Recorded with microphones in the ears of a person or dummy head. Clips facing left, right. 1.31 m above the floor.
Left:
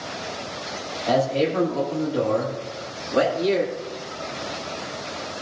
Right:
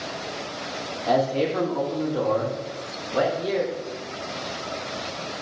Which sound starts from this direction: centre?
A man speaking, at 1.1 s.